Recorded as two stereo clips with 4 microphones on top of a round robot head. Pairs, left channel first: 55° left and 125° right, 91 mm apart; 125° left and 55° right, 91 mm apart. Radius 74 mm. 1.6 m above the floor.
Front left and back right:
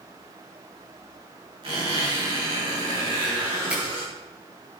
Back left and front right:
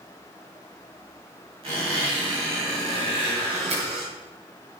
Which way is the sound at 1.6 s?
85° right.